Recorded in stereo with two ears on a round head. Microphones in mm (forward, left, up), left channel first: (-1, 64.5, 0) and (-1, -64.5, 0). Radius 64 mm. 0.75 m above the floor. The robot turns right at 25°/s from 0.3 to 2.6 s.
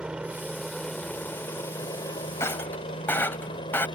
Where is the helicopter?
5° right (ahead or behind); by 4.0 s 30° left (ahead or behind).